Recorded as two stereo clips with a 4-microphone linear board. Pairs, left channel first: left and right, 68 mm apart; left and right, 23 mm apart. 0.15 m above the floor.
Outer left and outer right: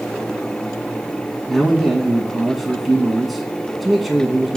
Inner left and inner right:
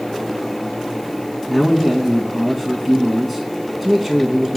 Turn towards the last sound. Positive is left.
turn(degrees=0)  # may be behind; listen again after turning